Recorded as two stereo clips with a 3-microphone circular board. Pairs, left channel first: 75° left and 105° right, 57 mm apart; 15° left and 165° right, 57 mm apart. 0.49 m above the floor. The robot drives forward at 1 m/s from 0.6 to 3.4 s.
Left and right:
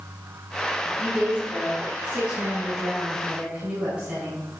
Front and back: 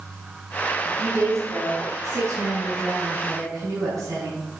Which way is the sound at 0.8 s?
175° right.